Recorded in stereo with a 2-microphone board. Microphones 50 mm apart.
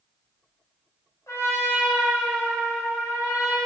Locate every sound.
1.3 s a trumpet: 80° left, 2.5 m